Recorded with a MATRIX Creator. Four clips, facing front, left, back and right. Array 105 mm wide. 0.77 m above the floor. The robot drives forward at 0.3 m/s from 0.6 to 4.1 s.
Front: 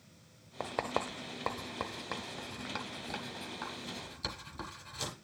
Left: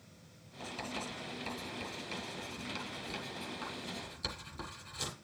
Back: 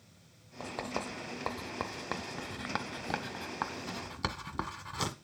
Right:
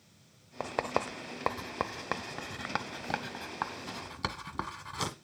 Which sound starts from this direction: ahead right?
Writing, at 0.6 s.